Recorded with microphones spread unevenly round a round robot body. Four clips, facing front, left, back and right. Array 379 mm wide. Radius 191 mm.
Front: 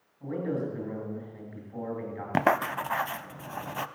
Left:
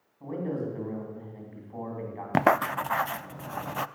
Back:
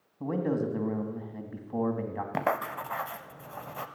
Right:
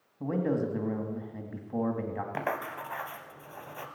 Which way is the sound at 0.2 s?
130° right.